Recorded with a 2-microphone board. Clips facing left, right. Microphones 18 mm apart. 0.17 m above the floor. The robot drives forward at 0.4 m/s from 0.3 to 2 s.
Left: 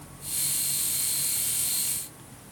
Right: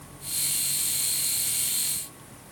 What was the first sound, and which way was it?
Only background noise.